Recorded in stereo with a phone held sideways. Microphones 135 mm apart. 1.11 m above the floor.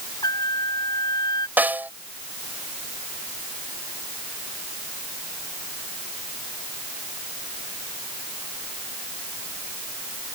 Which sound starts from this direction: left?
A trumpet, at 0.2 s.